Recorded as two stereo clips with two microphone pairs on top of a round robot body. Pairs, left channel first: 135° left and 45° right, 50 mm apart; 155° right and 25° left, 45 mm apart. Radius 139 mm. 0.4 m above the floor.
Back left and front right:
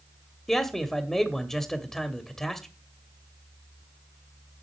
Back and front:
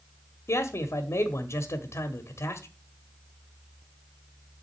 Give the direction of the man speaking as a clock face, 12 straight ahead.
5 o'clock.